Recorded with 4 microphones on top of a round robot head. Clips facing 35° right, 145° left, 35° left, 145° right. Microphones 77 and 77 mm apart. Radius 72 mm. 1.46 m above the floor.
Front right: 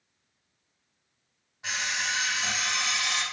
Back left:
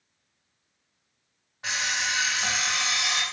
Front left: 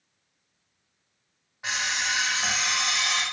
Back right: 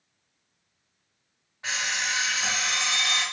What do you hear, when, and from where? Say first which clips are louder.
1.6 s an alarm clock: back left 2 dB, front left 1 dB; 105° left, 0.7 m